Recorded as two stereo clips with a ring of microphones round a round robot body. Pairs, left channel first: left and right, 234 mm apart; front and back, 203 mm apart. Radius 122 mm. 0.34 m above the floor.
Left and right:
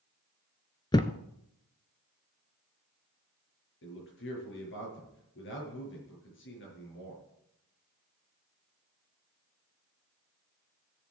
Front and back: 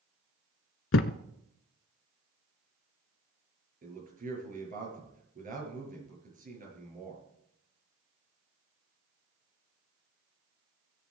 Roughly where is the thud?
Ahead.